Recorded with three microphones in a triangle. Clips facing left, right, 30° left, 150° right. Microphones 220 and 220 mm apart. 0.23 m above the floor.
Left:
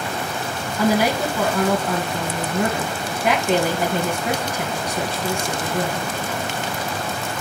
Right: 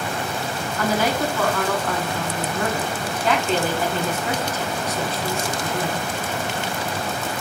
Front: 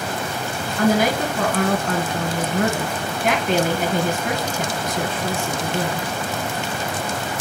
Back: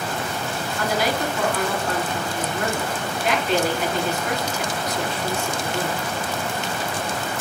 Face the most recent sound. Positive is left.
turn(degrees=15)